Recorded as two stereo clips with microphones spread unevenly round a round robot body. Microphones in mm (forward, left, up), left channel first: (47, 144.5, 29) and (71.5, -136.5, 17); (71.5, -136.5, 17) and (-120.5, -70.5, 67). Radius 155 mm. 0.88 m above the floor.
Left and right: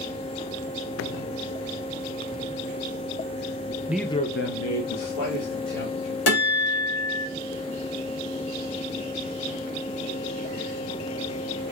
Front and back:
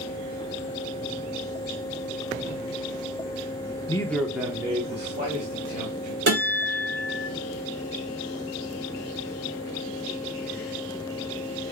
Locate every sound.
3.9 s a man speaking: 15° right, 0.6 m; by 6.2 s 100° left, 2 m
6.3 s a guitar: 110° left, 2.5 m